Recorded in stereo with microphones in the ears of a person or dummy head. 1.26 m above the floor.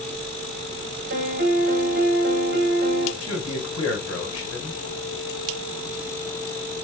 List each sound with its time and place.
1.1 s a piano: 45° right (ahead or behind), 1.0 m
3.2 s a man speaking: 90° left, 2 m